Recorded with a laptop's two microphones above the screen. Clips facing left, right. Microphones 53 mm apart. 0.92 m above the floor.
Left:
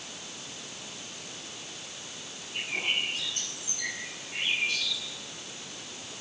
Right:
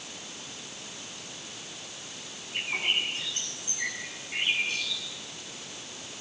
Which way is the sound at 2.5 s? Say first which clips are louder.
Right 2 dB; 40° right (ahead or behind).